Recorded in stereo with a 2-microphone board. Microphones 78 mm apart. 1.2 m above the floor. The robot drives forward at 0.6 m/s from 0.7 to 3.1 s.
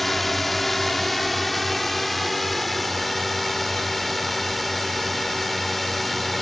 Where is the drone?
Centre (ahead or behind).